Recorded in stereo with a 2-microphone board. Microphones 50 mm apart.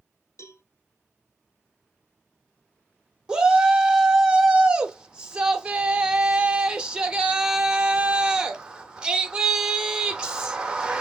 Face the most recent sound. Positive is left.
turn(degrees=-15)  # may be behind; listen again after turning